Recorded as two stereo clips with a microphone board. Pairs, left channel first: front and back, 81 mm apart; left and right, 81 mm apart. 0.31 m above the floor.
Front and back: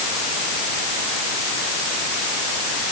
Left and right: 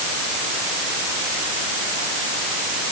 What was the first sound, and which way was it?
Only background noise.